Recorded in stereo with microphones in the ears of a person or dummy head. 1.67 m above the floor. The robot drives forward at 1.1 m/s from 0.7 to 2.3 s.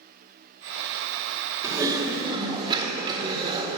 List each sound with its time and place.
1.6 s typing on a keyboard: 20° right (ahead or behind), 2.5 m; by 3.8 s 25° right (ahead or behind), 2.0 m